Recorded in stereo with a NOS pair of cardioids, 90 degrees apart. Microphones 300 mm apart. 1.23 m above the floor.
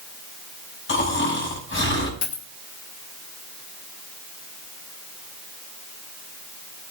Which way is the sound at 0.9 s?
40° left.